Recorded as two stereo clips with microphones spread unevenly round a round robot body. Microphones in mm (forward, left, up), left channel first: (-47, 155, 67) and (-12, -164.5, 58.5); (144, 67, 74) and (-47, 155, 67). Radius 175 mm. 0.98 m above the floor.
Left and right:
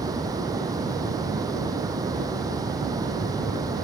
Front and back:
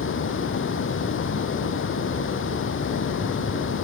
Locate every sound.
0.0 s running water: 5° right